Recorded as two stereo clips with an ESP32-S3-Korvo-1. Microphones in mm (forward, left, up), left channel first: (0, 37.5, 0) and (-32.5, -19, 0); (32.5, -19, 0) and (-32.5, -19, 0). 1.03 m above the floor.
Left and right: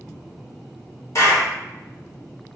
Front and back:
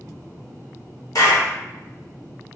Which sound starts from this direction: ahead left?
A clap, at 1.1 s.